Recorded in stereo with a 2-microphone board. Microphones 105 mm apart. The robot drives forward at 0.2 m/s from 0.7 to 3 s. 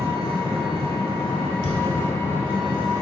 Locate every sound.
0.0 s an engine running: 65° right (ahead or behind), 1.0 m; by 3.0 s 50° right (ahead or behind), 1.1 m
1.6 s a thud: 50° left (ahead or behind), 0.7 m